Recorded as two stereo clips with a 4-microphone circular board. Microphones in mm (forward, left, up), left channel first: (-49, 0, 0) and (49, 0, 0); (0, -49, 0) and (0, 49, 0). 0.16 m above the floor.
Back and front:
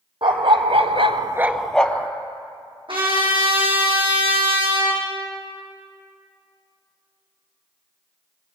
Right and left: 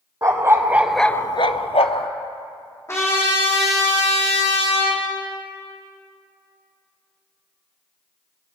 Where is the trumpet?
25° right, 3.5 m.